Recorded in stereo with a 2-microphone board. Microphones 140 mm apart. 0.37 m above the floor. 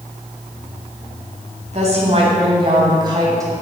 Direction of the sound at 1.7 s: 50° right (ahead or behind).